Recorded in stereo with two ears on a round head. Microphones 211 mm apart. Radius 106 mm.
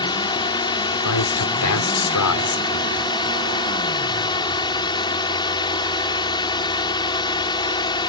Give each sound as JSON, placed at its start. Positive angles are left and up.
{"t": 0.0, "sound": "a drone", "side_deg": 20}
{"t": 1.1, "sound": "a man speaking", "side_deg": 85}